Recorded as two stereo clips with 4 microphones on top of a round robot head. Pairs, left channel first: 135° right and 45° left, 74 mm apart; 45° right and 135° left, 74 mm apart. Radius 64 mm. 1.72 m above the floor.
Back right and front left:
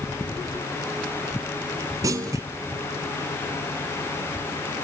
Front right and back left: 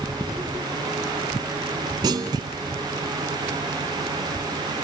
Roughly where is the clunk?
Left.